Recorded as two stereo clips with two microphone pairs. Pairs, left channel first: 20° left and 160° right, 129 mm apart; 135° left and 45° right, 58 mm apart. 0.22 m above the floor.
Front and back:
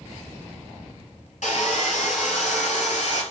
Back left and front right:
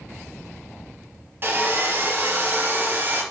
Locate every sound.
1.4 s sawing: 5° left, 2.5 m